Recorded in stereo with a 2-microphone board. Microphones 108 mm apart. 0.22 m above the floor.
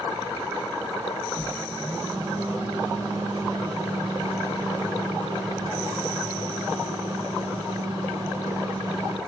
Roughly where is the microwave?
Right.